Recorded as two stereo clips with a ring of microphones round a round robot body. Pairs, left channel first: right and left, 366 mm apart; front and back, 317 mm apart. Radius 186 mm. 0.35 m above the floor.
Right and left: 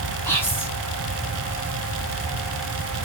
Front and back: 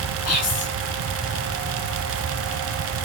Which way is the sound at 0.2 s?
10° right.